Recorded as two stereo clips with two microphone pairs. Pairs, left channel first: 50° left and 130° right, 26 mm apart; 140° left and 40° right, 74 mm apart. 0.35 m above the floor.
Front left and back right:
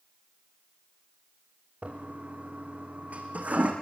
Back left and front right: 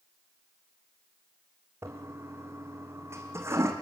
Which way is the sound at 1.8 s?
95° right.